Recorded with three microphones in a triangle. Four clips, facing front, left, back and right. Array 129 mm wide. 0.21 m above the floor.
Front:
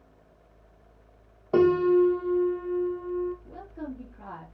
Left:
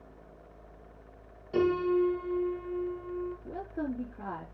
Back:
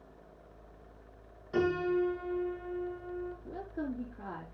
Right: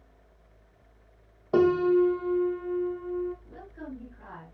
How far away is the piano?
About 3.5 m.